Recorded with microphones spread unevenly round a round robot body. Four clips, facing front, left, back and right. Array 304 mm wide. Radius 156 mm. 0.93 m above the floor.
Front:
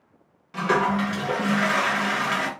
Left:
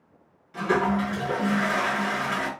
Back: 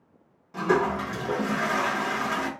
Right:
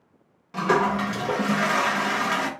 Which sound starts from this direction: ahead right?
A toilet flushing, at 0.5 s.